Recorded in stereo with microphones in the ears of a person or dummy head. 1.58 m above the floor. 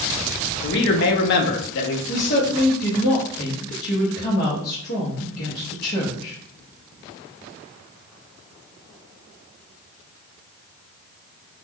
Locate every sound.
0.6 s a man speaking: 60° left (ahead or behind), 0.6 m
2.1 s a woman speaking: 55° left (ahead or behind), 0.9 m